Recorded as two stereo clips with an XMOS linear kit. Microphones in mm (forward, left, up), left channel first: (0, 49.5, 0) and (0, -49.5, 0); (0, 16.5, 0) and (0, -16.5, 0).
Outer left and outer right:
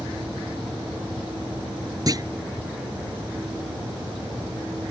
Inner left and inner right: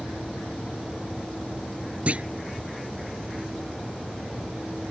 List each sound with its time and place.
2.1 s a clunk: 40° right (ahead or behind)